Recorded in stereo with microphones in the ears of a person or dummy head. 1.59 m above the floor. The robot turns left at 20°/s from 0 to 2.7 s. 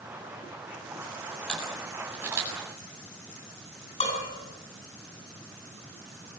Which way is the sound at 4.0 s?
35° left (ahead or behind).